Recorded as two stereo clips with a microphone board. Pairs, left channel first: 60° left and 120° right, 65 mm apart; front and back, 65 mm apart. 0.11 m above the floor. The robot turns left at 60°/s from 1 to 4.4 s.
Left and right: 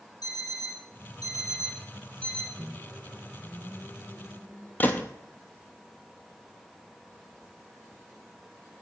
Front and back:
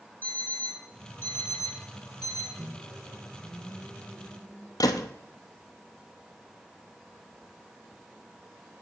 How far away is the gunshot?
About 0.7 m.